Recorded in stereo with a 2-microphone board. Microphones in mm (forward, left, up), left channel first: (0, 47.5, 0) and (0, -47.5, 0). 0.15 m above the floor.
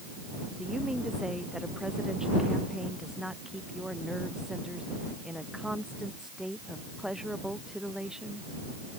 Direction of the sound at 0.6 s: 5° right (ahead or behind).